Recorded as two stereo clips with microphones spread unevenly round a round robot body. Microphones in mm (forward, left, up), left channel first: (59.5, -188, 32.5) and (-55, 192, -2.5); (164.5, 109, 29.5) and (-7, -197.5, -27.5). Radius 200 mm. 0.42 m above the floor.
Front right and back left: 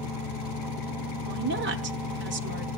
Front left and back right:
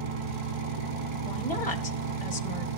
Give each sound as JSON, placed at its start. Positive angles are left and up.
{"t": 0.0, "sound": "an engine running", "azimuth_deg": -130, "distance_m": 3.0}
{"t": 1.2, "sound": "a woman speaking", "azimuth_deg": 130, "distance_m": 1.1}